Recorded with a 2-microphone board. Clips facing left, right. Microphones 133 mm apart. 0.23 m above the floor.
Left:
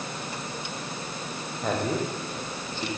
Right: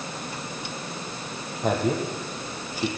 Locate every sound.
1.6 s a man speaking: 10° right (ahead or behind), 7.5 m